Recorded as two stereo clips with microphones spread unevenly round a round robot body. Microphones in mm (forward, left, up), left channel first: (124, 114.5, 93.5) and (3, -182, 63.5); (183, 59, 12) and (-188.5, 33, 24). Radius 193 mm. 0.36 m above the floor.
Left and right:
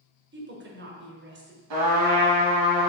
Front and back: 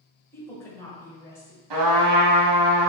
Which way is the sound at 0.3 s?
75° right.